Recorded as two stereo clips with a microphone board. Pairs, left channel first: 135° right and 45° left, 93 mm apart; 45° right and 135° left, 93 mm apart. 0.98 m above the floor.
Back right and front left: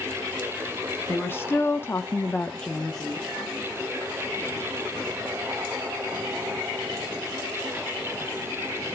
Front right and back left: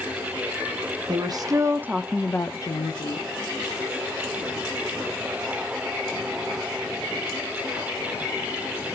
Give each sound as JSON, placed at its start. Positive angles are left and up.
{"t": 1.1, "sound": "a woman speaking", "azimuth_deg": 160, "distance_m": 1.2}